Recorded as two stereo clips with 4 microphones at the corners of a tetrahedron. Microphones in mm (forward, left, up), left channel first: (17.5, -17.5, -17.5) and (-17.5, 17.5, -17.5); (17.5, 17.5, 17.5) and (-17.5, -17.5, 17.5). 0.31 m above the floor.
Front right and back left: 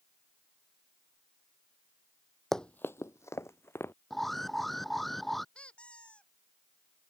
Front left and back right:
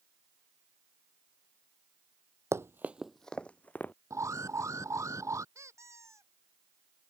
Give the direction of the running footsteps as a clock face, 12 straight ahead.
4 o'clock.